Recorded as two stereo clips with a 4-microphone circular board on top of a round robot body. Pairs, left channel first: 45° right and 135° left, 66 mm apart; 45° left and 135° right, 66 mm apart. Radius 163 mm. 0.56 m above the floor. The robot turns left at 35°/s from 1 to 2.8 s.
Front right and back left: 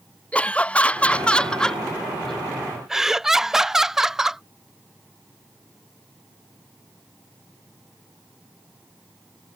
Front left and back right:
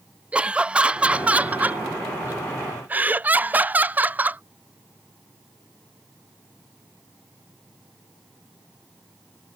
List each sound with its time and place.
0.3 s laughter: 85° right; by 4.4 s 150° right